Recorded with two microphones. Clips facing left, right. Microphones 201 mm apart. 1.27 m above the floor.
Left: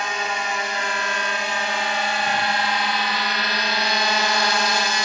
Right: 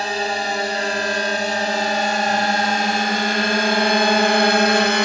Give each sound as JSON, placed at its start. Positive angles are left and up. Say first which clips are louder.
{"t": 0.0, "sound": "a drone", "louder": "right 5 dB", "side_deg": -35}